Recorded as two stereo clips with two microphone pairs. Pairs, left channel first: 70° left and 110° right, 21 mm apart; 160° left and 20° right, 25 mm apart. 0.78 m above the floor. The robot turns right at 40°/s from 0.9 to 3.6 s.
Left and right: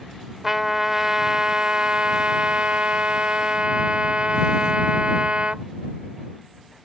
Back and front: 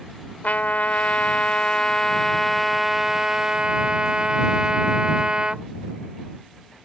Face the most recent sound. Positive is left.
turn(degrees=-75)